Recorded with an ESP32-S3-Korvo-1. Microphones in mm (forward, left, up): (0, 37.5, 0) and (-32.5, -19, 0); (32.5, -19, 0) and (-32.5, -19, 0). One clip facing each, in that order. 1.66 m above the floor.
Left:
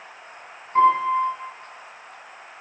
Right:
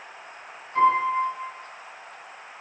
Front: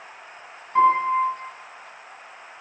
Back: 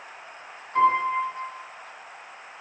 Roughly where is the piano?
Ahead left.